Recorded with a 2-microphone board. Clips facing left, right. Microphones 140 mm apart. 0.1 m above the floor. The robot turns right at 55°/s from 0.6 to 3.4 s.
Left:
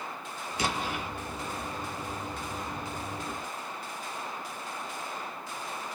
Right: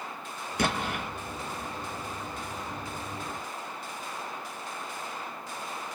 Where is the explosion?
55° right (ahead or behind), 0.6 m.